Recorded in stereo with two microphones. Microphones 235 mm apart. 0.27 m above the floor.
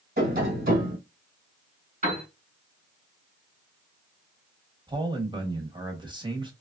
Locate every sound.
0.2 s tapping: 40° right (ahead or behind), 1.8 m
2.0 s a piano: 35° right (ahead or behind), 1.8 m
4.9 s a man speaking: 20° right (ahead or behind), 1.0 m